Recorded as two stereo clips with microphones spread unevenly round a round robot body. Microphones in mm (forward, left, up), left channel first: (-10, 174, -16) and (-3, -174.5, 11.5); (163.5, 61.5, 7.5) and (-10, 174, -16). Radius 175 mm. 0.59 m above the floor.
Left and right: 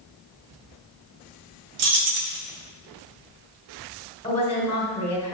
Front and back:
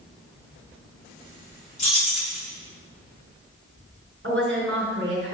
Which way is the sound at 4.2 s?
160° left.